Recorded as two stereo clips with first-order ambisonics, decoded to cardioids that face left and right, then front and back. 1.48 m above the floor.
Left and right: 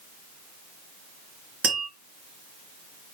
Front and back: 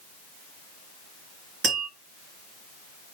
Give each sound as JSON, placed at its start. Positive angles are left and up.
{"t": 1.6, "sound": "tapping", "azimuth_deg": -120, "distance_m": 2.5}